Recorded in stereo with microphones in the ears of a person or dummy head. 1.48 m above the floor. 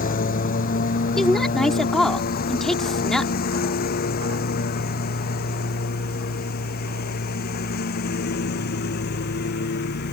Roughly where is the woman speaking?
Centre.